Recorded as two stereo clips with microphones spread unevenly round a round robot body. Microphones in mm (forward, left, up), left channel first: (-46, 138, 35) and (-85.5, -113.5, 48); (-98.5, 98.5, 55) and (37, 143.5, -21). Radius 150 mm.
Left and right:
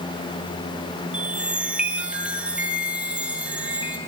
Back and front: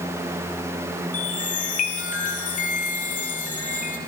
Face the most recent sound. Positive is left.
turn(degrees=175)